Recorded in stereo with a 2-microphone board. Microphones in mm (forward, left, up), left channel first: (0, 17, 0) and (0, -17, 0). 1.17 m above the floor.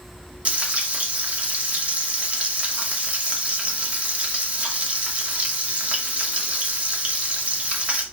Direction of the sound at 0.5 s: 40° right (ahead or behind).